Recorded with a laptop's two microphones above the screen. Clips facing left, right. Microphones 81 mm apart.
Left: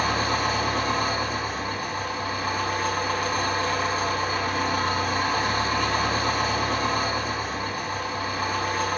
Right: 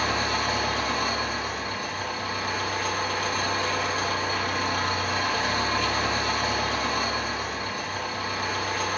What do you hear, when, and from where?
0.0 s an engine running: 50° left (ahead or behind), 3.5 m